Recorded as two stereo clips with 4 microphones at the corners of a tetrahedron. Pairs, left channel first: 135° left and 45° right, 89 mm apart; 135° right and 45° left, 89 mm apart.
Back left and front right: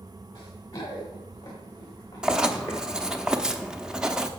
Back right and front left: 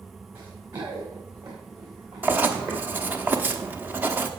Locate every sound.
0.3 s running footsteps: 85° left, 6 m; by 2.8 s 75° left, 3.5 m
2.2 s writing: 25° left, 0.9 m